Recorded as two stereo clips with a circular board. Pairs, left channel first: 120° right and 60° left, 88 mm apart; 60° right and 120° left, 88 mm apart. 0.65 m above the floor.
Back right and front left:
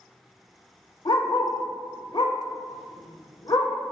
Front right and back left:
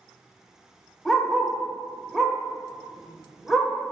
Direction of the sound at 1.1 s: 150° right.